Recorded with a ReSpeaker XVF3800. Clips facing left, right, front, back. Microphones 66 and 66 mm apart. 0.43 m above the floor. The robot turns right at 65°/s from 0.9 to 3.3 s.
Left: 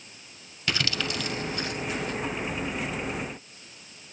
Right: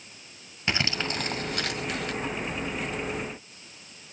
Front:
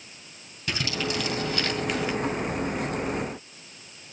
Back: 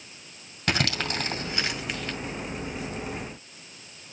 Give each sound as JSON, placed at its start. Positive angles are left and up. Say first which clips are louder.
{"t": 0.7, "sound": "crumpling", "louder": "right 1 dB, back 2 dB", "azimuth_deg": -155, "distance_m": 2.5}